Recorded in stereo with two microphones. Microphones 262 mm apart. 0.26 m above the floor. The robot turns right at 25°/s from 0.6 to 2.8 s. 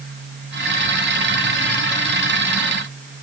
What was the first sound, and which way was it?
Only background noise.